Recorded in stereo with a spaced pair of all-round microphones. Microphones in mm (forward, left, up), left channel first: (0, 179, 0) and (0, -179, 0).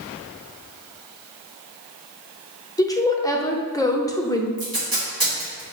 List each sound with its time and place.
2.8 s a woman speaking: 10° left (ahead or behind), 0.6 m
4.6 s tape being pulled: 75° right (ahead or behind), 1.9 m